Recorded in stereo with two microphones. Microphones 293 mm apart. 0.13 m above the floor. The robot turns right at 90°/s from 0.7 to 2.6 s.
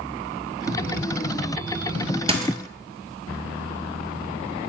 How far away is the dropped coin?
About 0.7 m.